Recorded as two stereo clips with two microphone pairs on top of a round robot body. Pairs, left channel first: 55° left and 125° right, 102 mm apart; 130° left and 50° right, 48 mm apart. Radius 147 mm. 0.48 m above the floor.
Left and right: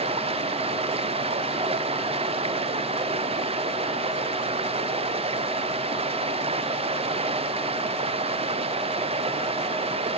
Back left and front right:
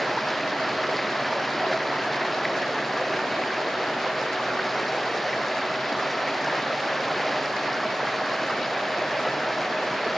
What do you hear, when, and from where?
0.0 s running water: 145° right